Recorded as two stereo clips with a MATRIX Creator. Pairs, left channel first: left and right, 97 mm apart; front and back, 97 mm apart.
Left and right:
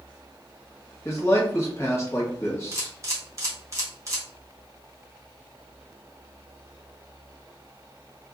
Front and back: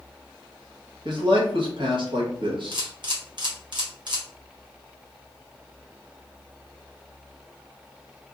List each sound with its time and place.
1.1 s a man speaking: 150° left, 1.1 m
2.7 s a camera shutter: 145° right, 1.1 m